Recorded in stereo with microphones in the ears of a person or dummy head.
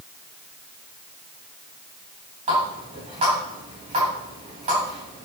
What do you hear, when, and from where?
2.5 s a running tap: 30° right (ahead or behind), 5.5 m